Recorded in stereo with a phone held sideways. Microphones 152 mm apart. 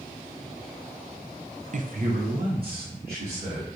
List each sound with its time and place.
1.7 s a man speaking: 55° right (ahead or behind), 0.5 m; by 3.7 s 85° right, 3.5 m